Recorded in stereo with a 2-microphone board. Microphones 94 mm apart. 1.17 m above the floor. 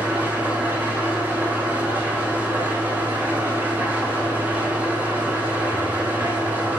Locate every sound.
0.0 s an engine running: 20° right (ahead or behind), 0.9 m